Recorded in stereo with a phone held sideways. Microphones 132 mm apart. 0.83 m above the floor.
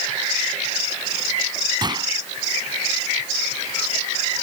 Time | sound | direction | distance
1.8 | a gunshot | 35° right (ahead or behind) | ?